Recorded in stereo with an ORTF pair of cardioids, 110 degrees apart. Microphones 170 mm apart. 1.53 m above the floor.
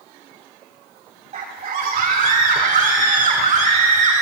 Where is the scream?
45° right, 3.5 m; by 4.2 s 40° right, 5 m.